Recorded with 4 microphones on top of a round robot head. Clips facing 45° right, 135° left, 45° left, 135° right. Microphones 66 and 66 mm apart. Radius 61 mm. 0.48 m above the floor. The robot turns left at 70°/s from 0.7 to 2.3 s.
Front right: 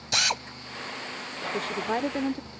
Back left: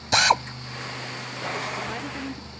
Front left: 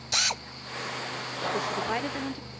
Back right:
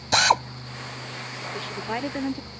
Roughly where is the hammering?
No hammering in this recording.